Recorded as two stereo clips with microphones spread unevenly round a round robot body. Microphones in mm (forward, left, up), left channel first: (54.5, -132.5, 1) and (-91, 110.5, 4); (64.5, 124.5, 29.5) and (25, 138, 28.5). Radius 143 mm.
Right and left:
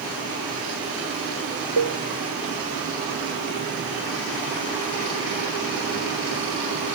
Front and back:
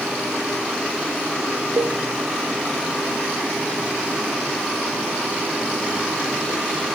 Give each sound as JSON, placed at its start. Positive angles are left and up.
{"t": 1.8, "sound": "a cowbell", "azimuth_deg": 140, "distance_m": 0.8}